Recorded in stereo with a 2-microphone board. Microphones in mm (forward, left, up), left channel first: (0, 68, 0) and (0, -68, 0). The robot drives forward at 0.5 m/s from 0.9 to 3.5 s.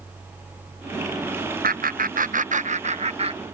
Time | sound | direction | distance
1.6 | laughter | 85° right | ?